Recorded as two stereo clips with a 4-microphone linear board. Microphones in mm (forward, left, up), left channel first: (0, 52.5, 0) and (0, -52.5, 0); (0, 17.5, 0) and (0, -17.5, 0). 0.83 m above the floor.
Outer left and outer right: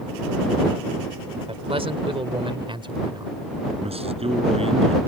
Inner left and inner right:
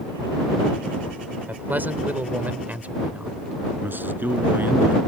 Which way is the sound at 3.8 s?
70° right (ahead or behind).